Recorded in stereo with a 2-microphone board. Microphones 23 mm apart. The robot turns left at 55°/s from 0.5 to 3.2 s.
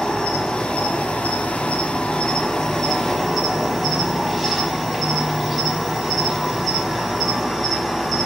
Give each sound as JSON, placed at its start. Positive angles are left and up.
{"t": 0.0, "sound": "an insect", "azimuth_deg": 145, "distance_m": 0.8}